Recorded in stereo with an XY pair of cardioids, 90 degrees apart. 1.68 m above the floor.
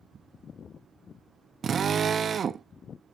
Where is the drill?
55° right, 0.9 m.